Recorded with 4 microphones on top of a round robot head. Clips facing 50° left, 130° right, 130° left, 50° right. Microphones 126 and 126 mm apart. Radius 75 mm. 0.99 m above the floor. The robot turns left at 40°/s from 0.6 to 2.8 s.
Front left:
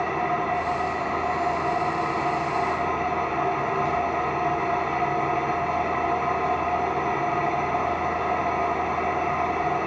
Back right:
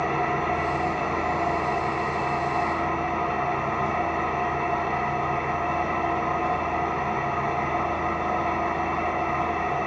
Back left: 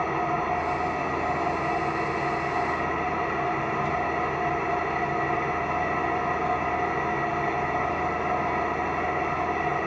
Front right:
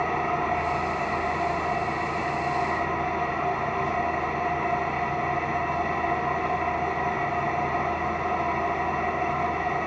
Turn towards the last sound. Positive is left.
turn(degrees=115)